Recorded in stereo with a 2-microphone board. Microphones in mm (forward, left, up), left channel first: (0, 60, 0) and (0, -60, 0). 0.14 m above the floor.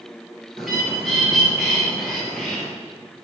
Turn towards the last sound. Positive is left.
turn(degrees=0)  # may be behind; listen again after turning